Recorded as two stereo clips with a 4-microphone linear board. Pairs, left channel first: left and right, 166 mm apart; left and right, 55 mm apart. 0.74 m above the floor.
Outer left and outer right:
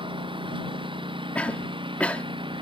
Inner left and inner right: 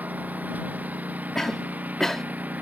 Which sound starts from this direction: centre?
A cough, at 1.4 s.